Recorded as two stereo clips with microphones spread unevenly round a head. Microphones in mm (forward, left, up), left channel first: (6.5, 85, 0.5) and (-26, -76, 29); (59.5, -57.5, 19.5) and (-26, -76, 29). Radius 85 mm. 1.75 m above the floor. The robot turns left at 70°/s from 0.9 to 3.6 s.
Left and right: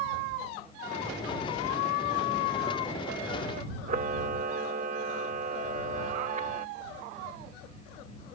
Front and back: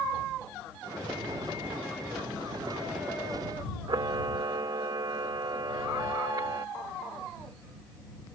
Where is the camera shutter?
135° right.